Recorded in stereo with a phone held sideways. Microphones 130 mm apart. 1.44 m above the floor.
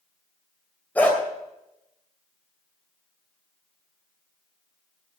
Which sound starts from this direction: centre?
A dog barking, at 0.9 s.